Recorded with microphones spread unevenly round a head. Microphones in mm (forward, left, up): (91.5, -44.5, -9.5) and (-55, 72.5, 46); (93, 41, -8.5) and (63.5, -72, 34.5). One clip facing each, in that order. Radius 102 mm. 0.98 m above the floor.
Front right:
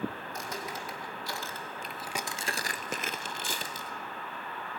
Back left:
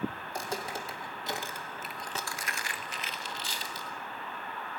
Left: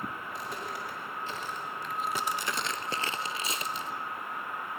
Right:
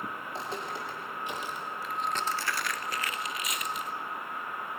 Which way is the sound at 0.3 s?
165° right.